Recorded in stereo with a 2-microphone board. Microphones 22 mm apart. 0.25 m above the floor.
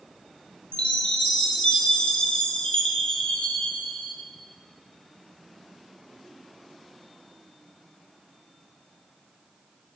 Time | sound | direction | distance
0.7 | a chime | 65° left (ahead or behind) | 2 m